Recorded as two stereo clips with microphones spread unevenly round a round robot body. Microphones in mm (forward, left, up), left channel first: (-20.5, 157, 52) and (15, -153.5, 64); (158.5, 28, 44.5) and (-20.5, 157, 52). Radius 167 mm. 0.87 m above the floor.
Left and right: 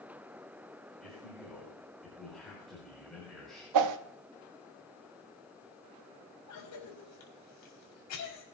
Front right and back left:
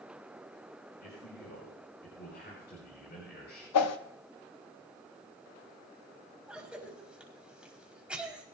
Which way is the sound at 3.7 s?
50° right.